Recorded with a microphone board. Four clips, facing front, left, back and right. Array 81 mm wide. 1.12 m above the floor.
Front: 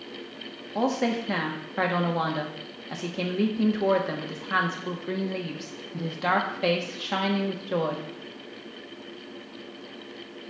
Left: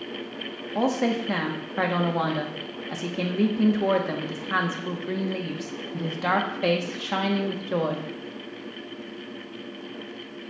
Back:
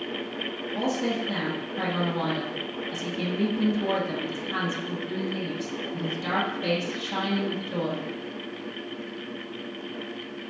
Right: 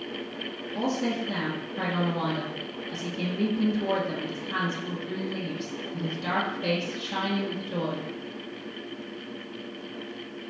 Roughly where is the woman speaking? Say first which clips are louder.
Left 4 dB, front 2 dB; ahead left.